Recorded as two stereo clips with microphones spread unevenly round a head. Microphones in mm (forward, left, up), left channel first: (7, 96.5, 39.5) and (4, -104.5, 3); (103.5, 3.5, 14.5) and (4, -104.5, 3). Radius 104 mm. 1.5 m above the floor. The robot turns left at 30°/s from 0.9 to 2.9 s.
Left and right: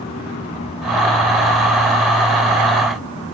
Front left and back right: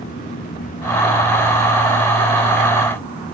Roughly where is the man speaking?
No man speaking in this recording.